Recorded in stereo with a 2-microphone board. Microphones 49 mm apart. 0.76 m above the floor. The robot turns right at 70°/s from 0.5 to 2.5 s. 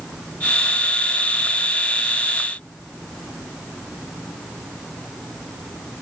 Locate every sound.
Only background noise.